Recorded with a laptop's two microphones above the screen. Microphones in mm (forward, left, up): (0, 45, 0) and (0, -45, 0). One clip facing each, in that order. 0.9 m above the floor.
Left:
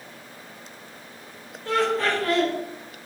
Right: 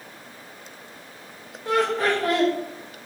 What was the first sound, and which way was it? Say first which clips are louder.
Laughter: right 1 dB; 15° right (ahead or behind).